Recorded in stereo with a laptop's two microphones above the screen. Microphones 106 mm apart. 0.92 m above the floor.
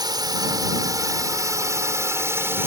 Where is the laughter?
No laughter in this recording.